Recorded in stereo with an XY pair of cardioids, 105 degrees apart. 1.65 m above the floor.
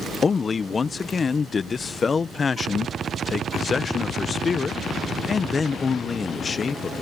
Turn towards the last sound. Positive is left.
turn(degrees=35)